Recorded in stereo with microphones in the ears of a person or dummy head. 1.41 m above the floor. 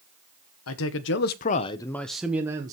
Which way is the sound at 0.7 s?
75° left (ahead or behind).